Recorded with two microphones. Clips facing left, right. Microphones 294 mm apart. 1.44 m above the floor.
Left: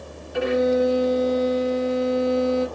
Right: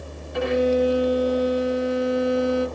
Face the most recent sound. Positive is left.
turn(degrees=0)  # may be behind; listen again after turning